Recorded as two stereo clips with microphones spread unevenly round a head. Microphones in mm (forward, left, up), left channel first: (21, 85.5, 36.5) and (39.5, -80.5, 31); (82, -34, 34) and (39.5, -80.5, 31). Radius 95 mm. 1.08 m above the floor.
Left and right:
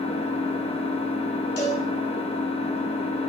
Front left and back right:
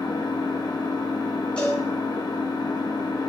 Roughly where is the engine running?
Ahead left.